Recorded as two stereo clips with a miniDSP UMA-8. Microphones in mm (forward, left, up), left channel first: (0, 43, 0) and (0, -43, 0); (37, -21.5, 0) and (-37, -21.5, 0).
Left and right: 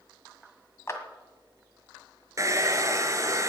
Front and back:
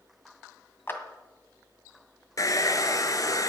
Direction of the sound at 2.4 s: 40° right.